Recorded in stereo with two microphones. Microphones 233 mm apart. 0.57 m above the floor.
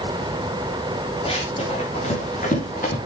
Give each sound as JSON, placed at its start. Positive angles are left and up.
{"t": 1.2, "sound": "running footsteps", "side_deg": 25, "distance_m": 3.5}